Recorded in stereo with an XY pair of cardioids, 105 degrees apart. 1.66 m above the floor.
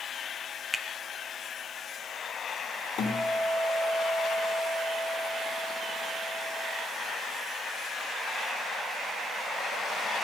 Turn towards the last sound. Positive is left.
turn(degrees=60)